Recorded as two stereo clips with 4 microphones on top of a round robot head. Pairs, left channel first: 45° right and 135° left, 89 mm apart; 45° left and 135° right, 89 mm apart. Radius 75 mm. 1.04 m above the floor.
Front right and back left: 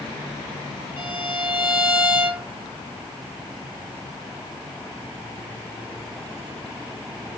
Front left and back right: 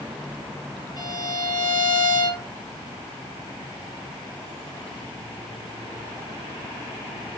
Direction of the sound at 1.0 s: 65° left.